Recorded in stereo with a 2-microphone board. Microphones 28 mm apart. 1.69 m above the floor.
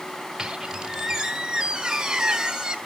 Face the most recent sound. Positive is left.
turn(degrees=-20)  # may be behind; listen again after turning